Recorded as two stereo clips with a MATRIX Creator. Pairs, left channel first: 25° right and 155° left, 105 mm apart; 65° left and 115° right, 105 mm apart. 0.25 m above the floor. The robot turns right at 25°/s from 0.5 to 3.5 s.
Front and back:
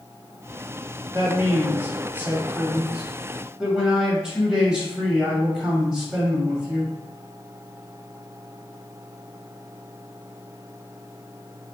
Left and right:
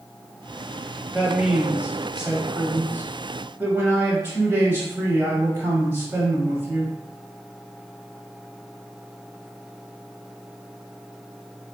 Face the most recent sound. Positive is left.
turn(degrees=-130)